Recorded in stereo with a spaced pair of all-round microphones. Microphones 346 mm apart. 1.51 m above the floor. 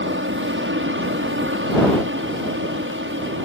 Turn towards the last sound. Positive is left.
turn(degrees=-35)  # may be behind; listen again after turning